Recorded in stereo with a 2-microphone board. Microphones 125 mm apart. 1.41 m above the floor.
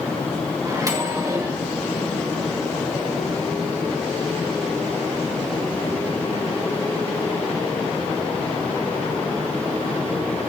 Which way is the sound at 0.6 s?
30° right (ahead or behind).